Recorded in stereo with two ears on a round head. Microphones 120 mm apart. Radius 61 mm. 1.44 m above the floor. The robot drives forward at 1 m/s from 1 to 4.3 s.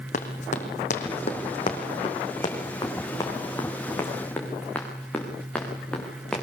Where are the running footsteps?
60° left (ahead or behind), 4.5 m; by 6.4 s 5° left (ahead or behind), 7 m.